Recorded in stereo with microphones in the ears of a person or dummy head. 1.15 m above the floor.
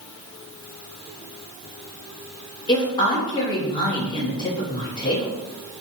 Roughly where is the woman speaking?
Left.